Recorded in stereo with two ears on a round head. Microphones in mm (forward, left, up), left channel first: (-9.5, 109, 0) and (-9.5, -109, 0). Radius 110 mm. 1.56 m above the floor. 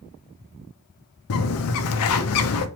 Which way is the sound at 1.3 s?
65° left (ahead or behind).